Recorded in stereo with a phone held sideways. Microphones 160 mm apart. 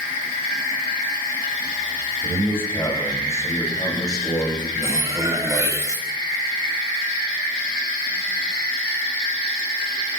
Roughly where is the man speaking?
Centre.